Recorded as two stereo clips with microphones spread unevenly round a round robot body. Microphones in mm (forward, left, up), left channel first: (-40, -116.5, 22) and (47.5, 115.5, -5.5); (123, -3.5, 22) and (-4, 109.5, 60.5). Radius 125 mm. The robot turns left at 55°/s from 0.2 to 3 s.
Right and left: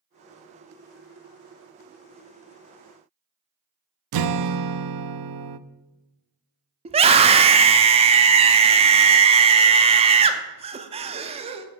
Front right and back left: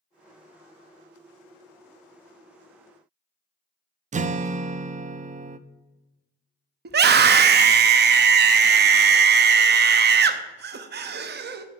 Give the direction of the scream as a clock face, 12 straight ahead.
8 o'clock.